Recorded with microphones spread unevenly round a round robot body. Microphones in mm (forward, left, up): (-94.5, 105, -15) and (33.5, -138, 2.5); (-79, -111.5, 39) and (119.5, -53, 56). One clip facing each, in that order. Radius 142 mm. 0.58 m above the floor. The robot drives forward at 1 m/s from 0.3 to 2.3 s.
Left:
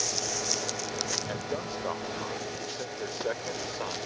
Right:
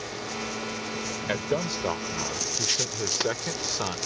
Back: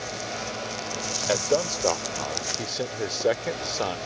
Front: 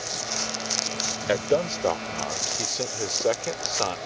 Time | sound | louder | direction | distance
1.3 | a man speaking | right 9 dB, front 1 dB | 55° right | ?